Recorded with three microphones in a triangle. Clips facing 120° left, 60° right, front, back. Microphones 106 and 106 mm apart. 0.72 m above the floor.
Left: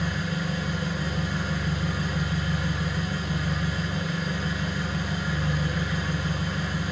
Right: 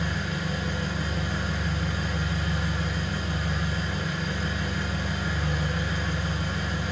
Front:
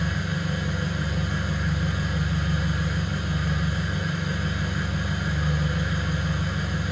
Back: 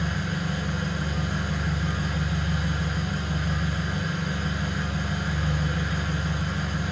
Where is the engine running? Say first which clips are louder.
Left 1 dB, front 1 dB; 120° right, 1.3 m.